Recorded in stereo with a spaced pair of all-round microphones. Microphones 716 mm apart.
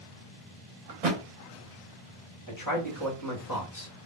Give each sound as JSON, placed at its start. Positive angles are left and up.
{"t": 0.9, "sound": "a thud", "side_deg": -55, "distance_m": 0.9}
{"t": 2.5, "sound": "a man speaking", "side_deg": 25, "distance_m": 0.8}